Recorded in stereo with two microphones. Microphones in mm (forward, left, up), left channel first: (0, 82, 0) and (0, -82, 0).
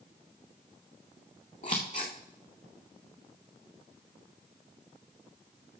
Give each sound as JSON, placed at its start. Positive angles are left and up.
{"t": 1.6, "sound": "scissors", "side_deg": 50, "distance_m": 2.5}